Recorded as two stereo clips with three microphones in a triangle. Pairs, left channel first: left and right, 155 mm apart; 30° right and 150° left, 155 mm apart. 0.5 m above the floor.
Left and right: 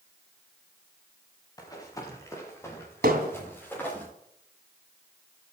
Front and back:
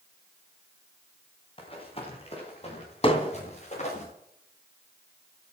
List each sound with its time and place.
1.6 s running footsteps: 25° left, 6 m; by 4.0 s 10° left, 8.5 m
3.0 s hammering: 85° right, 2.5 m